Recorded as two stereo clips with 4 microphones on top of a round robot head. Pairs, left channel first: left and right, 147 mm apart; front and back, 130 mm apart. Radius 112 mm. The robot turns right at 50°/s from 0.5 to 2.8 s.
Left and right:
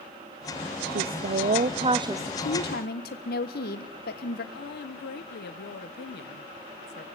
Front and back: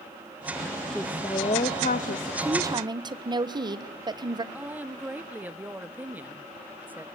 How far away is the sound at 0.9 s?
About 1.0 m.